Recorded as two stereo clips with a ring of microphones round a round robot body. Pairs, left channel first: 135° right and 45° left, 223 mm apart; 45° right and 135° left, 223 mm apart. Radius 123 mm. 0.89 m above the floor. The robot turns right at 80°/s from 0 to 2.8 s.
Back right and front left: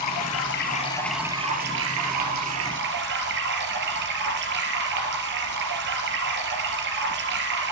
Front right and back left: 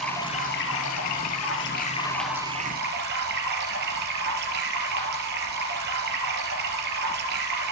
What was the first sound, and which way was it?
Running water, 135° right.